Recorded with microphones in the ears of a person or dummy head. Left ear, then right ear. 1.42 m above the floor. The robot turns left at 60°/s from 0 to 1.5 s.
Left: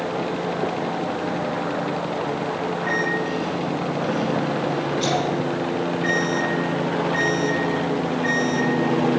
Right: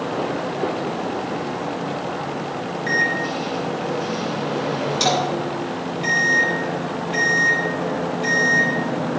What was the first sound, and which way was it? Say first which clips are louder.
A microwave: right 5 dB; 75° right (ahead or behind).